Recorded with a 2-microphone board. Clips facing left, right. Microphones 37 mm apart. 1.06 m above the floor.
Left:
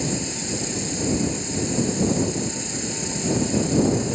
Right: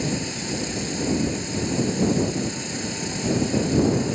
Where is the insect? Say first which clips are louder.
Even; 10° right (ahead or behind).